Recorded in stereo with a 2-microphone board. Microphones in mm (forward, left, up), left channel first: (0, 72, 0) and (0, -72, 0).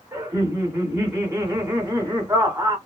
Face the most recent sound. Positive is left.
turn(degrees=-15)  # may be behind; listen again after turning